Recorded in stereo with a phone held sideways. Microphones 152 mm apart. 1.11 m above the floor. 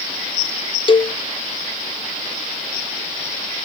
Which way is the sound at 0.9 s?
35° left (ahead or behind).